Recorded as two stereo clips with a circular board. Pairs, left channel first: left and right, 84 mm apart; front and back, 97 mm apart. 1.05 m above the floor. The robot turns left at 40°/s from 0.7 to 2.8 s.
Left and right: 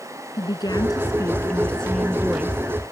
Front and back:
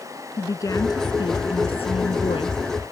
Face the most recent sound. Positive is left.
turn(degrees=-30)